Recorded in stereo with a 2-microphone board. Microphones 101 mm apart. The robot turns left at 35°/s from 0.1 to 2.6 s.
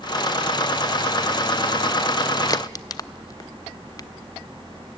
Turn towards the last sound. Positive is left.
turn(degrees=40)  # may be behind; listen again after turning